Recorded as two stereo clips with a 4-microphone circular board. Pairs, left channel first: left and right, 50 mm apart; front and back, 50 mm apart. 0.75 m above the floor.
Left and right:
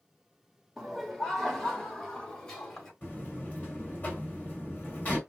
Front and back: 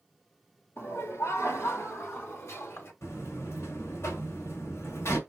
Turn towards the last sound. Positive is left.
turn(degrees=30)